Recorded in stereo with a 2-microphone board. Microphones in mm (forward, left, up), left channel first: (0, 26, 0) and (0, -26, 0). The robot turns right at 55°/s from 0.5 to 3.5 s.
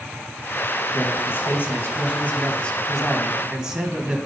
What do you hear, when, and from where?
0.9 s a man speaking: 60° left, 1.6 m; by 4.2 s 160° right, 1.6 m